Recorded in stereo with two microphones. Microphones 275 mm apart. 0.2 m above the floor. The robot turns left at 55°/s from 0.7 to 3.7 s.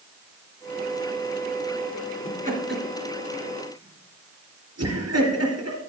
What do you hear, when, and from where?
2.2 s laughter: 20° right (ahead or behind), 3.5 m; by 5.8 s 65° right (ahead or behind), 3.5 m